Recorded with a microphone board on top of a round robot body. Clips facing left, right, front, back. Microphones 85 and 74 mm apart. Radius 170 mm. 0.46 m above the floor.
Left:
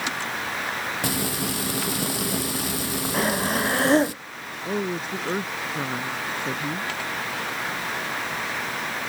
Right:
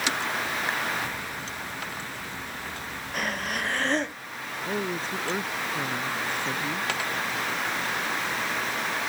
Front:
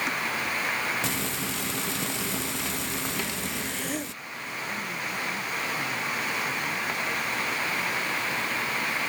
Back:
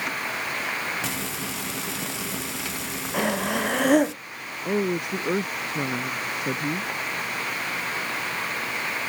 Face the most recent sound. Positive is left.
turn(degrees=165)